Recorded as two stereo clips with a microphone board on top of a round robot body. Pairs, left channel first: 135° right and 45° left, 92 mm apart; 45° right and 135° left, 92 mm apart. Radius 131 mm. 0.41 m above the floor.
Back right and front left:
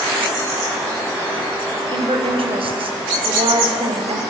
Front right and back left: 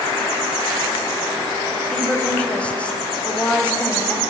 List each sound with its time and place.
1.9 s a woman speaking: 35° left, 3.5 m